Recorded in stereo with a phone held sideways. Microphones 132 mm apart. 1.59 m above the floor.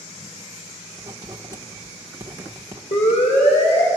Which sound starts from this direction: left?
A siren, at 2.9 s.